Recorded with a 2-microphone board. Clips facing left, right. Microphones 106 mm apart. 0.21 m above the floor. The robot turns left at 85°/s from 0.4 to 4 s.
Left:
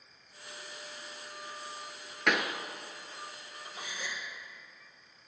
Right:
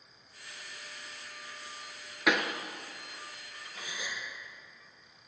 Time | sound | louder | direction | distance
2.3 | a pop | right 1 dB | 5° right (ahead or behind) | 0.6 m
3.7 | a gasp | even | 35° right (ahead or behind) | 1.9 m